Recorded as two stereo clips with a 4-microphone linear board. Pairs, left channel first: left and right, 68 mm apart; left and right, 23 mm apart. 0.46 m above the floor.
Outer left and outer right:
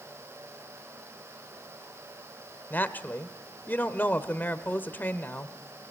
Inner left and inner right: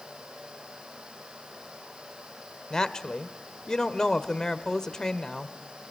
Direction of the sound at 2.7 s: 30° left (ahead or behind).